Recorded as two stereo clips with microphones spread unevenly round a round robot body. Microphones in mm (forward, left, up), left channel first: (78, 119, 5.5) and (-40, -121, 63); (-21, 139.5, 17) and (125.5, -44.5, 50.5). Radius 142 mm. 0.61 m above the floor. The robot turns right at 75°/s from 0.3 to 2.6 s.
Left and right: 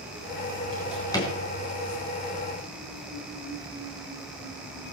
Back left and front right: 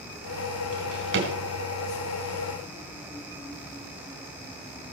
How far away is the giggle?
I don't hear a giggle.